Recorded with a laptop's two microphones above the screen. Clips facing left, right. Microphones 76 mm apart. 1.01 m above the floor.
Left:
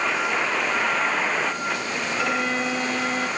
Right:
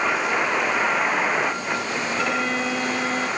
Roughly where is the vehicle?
Centre.